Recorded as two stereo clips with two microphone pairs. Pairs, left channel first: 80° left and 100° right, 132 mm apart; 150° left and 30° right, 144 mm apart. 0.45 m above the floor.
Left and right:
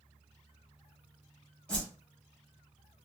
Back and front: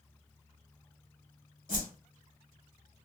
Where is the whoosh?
160° left, 1.6 m.